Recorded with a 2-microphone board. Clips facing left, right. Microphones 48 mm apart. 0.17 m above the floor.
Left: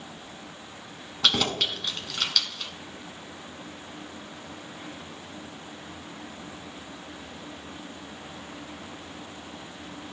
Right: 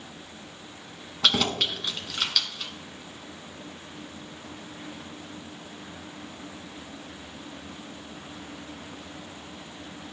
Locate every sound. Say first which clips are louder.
1.2 s keys jangling: right 1 dB; 5° right (ahead or behind), 0.9 m